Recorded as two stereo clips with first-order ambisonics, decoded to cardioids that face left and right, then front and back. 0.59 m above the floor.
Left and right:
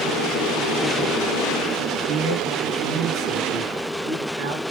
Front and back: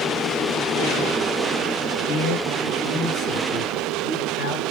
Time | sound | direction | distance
2.1 | a man speaking | 45° right | 5.5 m